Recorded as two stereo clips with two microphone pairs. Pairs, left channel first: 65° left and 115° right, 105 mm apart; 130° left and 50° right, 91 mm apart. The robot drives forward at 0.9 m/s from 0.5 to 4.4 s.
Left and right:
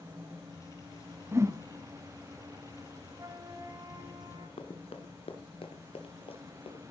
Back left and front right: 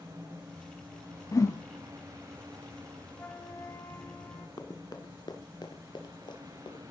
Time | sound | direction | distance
1.3 | a whoosh | 175° right | 0.7 m
3.1 | a flute | 165° right | 0.7 m
4.6 | running footsteps | 90° left | 1.7 m